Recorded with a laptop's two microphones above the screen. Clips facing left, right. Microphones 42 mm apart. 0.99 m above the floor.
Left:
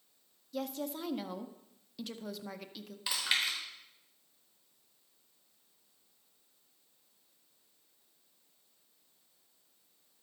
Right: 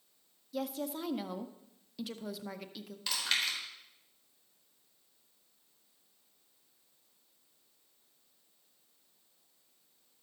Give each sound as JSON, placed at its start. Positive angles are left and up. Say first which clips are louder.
{"t": 0.5, "sound": "a woman speaking", "louder": "right 1 dB", "side_deg": -5, "distance_m": 0.6}
{"t": 3.1, "sound": "chewing", "louder": "left 1 dB", "side_deg": 15, "distance_m": 4.5}